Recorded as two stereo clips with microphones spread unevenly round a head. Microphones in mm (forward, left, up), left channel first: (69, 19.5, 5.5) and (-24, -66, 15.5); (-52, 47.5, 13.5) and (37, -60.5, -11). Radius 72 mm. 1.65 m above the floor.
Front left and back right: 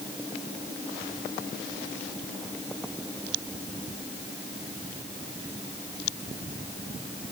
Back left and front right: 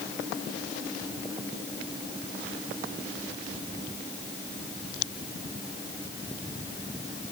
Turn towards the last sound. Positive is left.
No sound to turn to.